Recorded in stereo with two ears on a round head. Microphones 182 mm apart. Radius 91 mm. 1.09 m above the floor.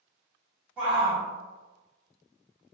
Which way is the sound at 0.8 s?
10° right (ahead or behind).